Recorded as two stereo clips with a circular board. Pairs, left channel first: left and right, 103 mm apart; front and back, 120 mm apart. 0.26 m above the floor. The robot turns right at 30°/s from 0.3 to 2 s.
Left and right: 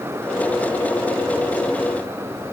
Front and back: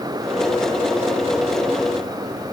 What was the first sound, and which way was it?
Only background noise.